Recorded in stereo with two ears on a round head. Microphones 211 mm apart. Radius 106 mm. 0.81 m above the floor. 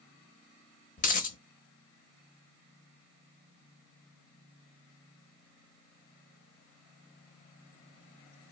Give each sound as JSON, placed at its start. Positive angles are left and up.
{"t": 1.0, "sound": "a dropped coin", "side_deg": 35, "distance_m": 0.7}